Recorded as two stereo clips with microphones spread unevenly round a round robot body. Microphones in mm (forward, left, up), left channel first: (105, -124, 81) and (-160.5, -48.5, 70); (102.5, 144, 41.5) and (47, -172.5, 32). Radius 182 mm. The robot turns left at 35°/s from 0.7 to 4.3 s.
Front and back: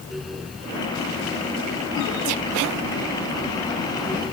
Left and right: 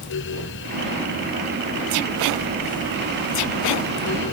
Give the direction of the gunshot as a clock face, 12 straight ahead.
I don't hear a gunshot.